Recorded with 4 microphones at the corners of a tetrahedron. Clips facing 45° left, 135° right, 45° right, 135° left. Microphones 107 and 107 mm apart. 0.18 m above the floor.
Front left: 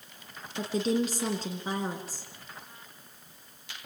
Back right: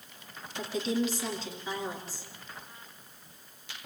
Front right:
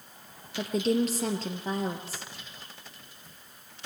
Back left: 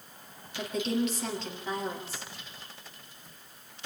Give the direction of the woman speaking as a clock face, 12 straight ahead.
12 o'clock.